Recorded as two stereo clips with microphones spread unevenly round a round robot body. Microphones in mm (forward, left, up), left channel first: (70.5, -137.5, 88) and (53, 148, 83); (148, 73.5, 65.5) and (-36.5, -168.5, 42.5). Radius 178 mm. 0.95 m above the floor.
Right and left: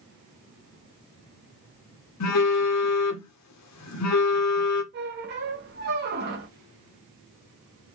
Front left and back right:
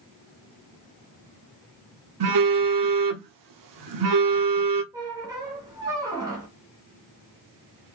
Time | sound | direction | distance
2.2 | a phone buzzing | 120° right | 0.9 m
4.9 | a squeak | 155° left | 0.9 m